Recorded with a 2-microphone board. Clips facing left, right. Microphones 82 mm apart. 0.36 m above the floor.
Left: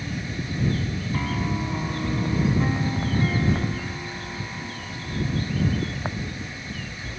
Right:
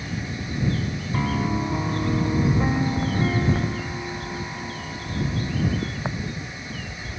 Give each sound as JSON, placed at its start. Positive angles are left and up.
{"t": 1.1, "sound": "a piano", "side_deg": -15}